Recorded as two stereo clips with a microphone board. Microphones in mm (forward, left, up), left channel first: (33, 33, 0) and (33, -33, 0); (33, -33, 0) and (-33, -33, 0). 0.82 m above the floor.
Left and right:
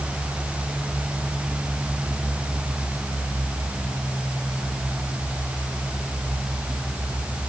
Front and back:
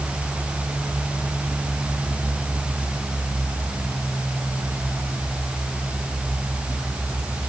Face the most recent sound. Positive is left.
No sound to turn to.